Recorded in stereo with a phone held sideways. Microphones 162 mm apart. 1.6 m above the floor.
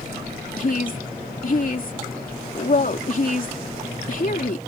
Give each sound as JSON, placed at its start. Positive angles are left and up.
{"t": 0.6, "sound": "a woman speaking", "side_deg": 60}